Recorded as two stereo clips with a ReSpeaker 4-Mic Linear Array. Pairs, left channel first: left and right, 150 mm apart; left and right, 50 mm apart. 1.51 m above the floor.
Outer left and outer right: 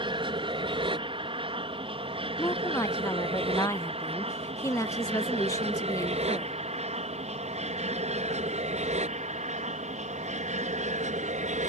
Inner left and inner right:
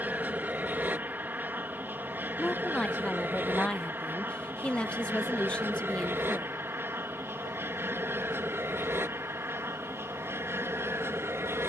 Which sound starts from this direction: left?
A woman speaking, at 2.4 s.